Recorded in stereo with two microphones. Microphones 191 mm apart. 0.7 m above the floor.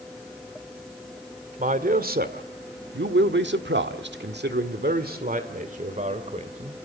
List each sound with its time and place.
1.6 s a man speaking: 45° right (ahead or behind), 1.8 m; by 6.8 s 35° right (ahead or behind), 2.5 m